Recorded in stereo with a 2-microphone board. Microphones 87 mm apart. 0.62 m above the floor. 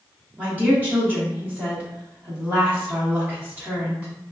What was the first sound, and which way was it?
A woman speaking, 15° right (ahead or behind).